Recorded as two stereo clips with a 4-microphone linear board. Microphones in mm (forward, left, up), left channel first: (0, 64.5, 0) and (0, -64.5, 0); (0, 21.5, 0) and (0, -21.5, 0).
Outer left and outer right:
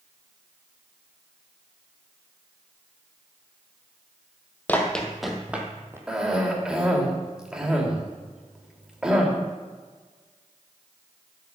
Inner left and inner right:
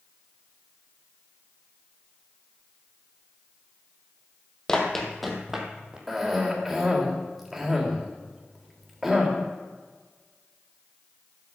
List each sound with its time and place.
4.7 s running footsteps: 10° left (ahead or behind), 1.8 m; by 6.0 s 20° right (ahead or behind), 2 m
6.1 s a cough: 5° right (ahead or behind), 3 m